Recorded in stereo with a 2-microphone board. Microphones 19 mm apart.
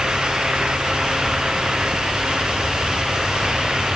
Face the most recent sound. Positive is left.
No sound to turn to.